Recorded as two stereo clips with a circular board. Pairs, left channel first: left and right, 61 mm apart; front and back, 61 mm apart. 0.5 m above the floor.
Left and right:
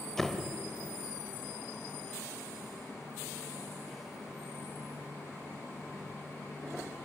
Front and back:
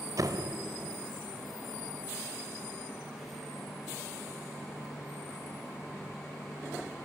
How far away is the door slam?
About 1.4 m.